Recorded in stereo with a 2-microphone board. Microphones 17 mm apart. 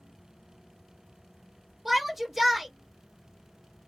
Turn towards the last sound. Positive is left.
turn(degrees=-15)  # may be behind; listen again after turning